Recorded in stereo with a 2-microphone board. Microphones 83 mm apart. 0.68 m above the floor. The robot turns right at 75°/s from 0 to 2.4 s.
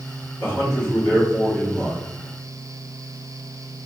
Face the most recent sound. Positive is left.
turn(degrees=180)